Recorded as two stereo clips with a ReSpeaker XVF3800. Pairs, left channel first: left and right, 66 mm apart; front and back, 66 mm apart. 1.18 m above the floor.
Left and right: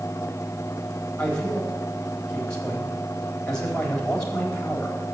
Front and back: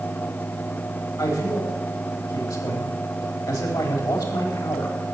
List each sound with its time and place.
1.2 s a man speaking: 15° left, 3.5 m